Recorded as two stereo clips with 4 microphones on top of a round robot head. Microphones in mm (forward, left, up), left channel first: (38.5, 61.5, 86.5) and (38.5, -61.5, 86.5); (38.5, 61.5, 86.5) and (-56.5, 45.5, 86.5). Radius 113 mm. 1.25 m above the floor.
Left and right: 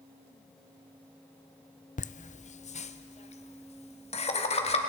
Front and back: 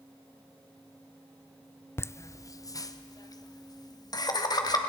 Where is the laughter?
75° left, 0.7 m; by 4.8 s 55° left, 3 m.